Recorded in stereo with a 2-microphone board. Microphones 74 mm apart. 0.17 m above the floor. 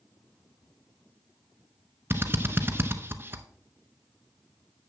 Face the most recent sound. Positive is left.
turn(degrees=-30)  # may be behind; listen again after turning